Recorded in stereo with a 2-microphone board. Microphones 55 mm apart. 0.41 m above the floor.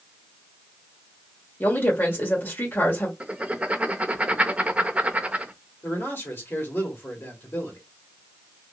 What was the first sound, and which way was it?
A woman speaking, 40° left (ahead or behind).